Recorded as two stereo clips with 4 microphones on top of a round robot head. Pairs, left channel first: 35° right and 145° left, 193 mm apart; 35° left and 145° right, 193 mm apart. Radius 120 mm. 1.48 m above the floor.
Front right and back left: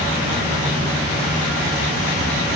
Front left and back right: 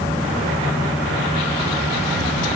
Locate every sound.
Only background noise.